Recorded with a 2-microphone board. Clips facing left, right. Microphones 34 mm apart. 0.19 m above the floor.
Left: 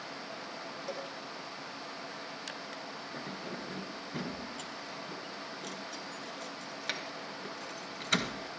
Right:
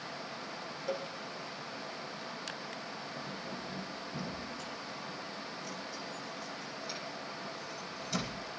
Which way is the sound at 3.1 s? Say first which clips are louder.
Left 1 dB; 65° left (ahead or behind).